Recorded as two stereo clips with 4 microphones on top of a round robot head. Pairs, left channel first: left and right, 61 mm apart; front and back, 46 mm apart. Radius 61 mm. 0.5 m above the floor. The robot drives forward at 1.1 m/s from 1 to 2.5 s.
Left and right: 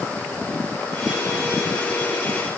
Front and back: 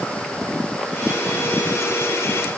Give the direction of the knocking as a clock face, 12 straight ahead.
I don't hear knocking.